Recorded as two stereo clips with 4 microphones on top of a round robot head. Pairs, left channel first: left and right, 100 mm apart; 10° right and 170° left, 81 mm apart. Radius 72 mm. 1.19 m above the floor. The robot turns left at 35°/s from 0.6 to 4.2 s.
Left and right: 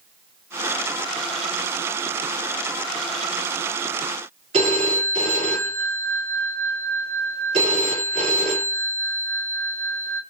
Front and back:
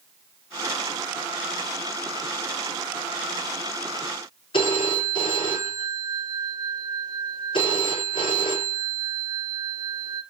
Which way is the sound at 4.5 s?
50° right.